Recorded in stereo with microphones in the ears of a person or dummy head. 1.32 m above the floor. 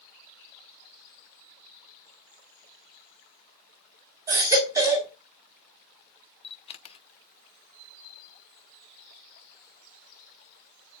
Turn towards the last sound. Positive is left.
turn(degrees=35)  # may be behind; listen again after turning